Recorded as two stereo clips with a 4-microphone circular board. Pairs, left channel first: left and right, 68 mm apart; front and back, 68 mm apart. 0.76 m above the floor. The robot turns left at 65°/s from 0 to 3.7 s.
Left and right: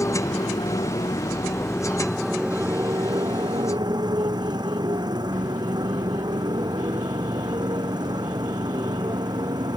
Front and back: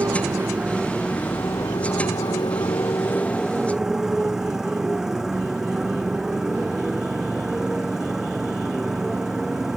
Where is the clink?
I don't hear a clink.